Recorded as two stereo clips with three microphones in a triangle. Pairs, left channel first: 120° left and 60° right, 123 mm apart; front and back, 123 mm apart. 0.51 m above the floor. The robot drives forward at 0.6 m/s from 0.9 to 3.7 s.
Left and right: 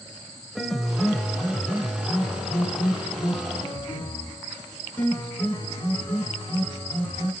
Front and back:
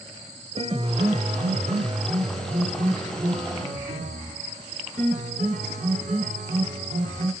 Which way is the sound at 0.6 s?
150° right.